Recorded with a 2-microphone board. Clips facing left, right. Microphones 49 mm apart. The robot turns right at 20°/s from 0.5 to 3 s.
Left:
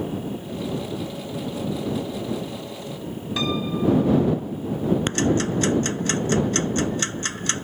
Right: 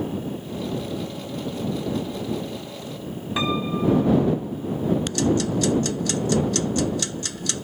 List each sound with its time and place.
3.4 s a piano: 20° right (ahead or behind)
5.1 s ticking: 35° left (ahead or behind)